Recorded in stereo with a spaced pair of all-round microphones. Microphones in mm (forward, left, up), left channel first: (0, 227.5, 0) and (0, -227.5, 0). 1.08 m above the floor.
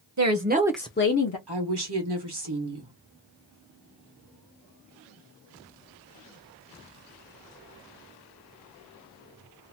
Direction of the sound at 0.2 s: 40° right (ahead or behind).